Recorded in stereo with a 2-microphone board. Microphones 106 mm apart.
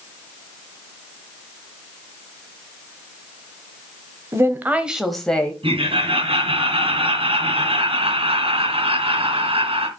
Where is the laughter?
60° right (ahead or behind), 3 m.